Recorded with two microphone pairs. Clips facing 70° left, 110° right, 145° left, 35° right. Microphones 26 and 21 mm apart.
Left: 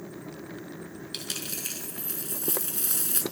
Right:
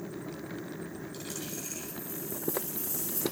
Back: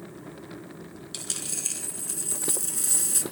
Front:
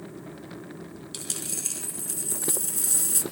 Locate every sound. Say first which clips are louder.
1.1 s a dropped coin: left 7 dB, back 1 dB; 60° left, 4.5 m